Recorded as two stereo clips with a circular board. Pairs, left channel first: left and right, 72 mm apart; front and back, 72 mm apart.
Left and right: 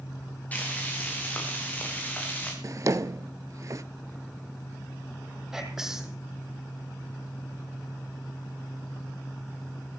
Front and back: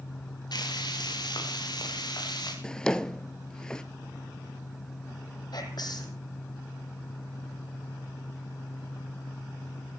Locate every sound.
0.5 s frying: 20° left, 7 m
2.6 s a drawer: 75° right, 0.6 m
5.5 s whispering: 10° right, 4.5 m